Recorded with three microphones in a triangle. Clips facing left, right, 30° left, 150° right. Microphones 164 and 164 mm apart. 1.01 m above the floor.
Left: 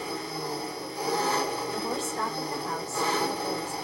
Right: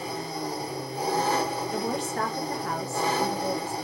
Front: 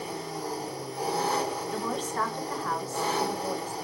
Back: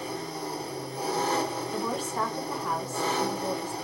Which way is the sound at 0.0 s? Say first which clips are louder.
Right 1 dB, even; 50° right.